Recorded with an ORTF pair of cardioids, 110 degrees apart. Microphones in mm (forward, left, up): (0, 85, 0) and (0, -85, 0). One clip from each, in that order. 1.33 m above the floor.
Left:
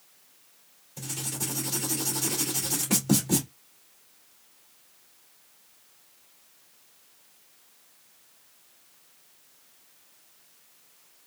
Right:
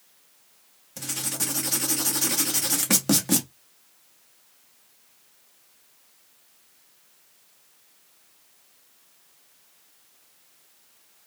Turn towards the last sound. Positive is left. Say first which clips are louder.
# right 4 dB
turn(degrees=-70)